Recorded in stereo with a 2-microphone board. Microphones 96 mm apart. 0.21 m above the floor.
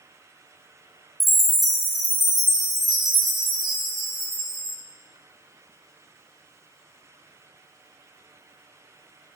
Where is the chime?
Centre (ahead or behind), 1.6 m.